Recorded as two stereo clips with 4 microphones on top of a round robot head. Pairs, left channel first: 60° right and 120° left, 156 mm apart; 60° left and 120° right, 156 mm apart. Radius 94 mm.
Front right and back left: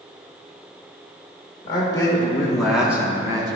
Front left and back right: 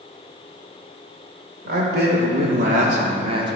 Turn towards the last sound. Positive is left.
turn(degrees=180)